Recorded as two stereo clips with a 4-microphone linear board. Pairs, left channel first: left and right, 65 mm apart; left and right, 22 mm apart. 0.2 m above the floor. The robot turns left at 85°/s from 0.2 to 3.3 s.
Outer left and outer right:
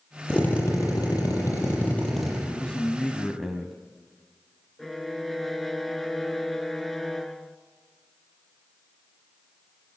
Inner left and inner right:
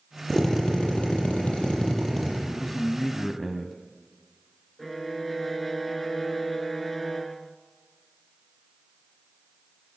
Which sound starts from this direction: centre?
A violin, at 4.8 s.